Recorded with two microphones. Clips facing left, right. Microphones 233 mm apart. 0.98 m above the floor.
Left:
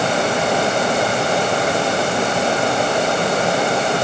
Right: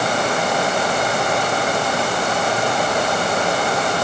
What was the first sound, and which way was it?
Only background noise.